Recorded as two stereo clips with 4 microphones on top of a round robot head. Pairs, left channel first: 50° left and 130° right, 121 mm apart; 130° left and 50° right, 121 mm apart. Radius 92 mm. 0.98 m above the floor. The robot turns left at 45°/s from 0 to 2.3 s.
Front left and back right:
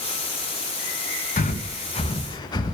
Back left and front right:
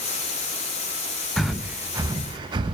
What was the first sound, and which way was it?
Breathing, 40° left.